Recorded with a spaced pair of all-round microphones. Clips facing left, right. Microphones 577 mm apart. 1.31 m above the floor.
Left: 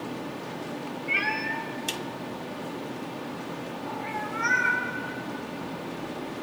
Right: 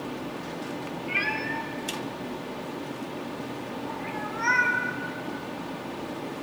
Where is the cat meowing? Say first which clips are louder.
Right 1 dB; 10° left (ahead or behind), 0.7 m.